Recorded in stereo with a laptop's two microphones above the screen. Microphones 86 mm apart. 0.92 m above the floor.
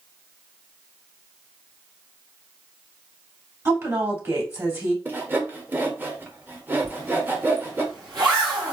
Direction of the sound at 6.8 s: 55° right (ahead or behind).